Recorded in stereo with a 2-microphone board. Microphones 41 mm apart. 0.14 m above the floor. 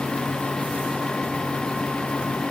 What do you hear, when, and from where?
Only background noise.